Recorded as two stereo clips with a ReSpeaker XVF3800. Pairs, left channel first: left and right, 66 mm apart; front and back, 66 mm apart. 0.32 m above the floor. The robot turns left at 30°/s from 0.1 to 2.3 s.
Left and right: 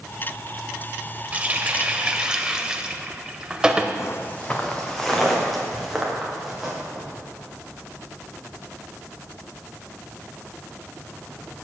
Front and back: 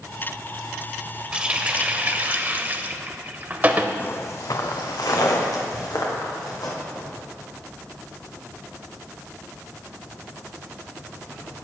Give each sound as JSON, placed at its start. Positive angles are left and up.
{"t": 1.3, "sound": "a running tap", "azimuth_deg": -120, "distance_m": 0.7}
{"t": 4.0, "sound": "footsteps", "azimuth_deg": 55, "distance_m": 0.8}